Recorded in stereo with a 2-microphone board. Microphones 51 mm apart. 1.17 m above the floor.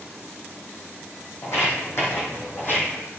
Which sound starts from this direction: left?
Footsteps, at 1.4 s.